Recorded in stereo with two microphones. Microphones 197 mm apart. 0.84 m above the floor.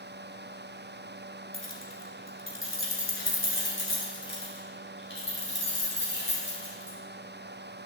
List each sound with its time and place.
1.5 s keys jangling: 85° left, 1.4 m; by 7.0 s 65° left (ahead or behind), 4 m